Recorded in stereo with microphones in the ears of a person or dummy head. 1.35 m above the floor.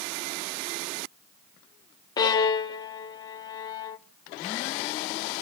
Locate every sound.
2.2 s a violin: 20° left (ahead or behind), 0.6 m